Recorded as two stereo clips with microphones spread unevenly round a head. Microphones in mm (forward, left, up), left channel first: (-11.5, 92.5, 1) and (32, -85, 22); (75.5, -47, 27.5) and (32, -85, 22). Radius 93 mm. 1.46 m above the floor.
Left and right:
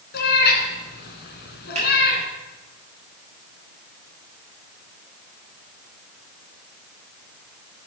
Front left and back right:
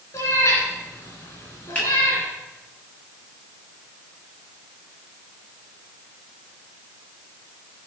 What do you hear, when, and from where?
0.1 s a cat meowing: 75° left, 2.5 m
1.8 s a finger snap: 20° right, 7 m